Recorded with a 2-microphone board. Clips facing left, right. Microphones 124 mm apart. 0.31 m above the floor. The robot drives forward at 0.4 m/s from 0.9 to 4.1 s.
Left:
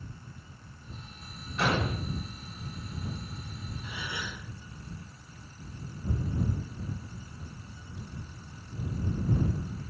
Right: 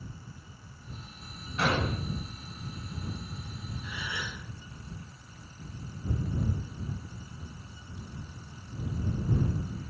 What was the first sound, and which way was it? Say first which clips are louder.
An explosion: even; 5° right (ahead or behind).